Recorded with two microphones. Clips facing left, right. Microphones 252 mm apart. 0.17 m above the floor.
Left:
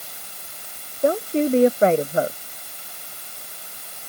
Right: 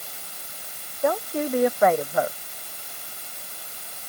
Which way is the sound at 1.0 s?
30° left (ahead or behind).